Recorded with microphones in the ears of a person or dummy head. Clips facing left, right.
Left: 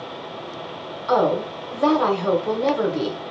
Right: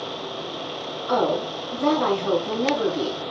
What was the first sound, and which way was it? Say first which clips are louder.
A woman speaking: left 3 dB; 65° left (ahead or behind).